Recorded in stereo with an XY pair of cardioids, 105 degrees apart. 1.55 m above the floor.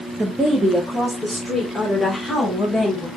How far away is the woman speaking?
About 1.5 m.